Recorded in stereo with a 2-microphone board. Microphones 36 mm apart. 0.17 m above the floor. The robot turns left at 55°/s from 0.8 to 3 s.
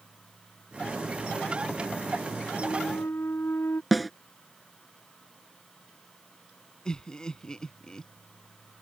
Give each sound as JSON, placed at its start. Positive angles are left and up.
{"t": 2.6, "sound": "a flute", "side_deg": 85}
{"t": 3.9, "sound": "a snare drum", "side_deg": 0}
{"t": 6.8, "sound": "laughter", "side_deg": 20}